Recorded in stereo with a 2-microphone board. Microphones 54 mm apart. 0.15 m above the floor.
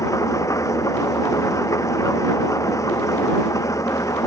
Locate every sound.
0.0 s an engine running: 80° left